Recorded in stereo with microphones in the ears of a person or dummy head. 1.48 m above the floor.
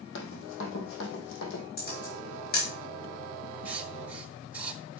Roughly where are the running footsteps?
Left.